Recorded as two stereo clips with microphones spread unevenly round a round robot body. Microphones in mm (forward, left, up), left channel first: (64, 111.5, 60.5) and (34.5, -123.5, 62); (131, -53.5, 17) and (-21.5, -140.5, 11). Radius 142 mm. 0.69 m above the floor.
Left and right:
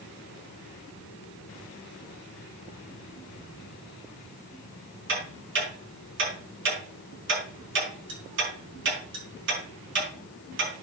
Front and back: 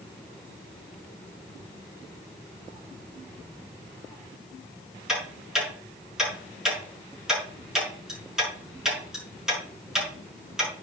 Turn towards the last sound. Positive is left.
turn(degrees=-65)